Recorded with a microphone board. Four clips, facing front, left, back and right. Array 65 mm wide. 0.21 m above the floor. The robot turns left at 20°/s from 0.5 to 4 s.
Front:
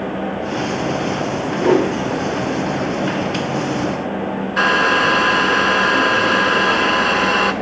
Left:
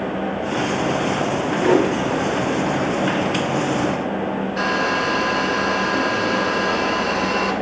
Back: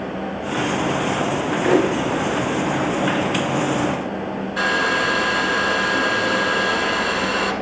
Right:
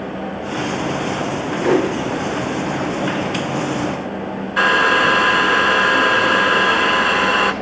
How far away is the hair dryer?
About 0.8 m.